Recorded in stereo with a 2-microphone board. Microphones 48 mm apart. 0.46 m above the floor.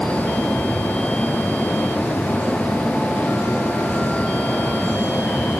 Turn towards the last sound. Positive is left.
No sound to turn to.